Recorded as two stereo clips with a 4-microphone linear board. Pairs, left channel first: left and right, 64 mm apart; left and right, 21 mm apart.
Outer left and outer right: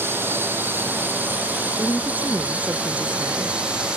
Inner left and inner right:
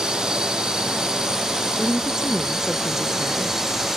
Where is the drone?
35° right (ahead or behind); by 4.0 s 15° right (ahead or behind).